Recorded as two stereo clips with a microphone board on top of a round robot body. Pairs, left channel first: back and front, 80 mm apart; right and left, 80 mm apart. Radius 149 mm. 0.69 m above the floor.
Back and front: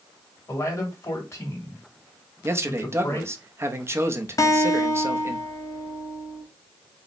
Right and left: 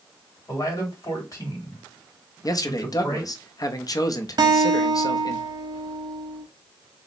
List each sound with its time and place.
0.5 s a man speaking: 135° right, 2.5 m
2.4 s a man speaking: 55° right, 0.8 m
4.4 s a guitar: 130° left, 0.6 m